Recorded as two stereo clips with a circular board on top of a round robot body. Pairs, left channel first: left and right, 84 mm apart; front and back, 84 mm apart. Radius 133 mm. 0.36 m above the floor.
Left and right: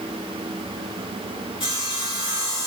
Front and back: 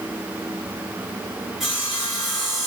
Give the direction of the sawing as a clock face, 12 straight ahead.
9 o'clock.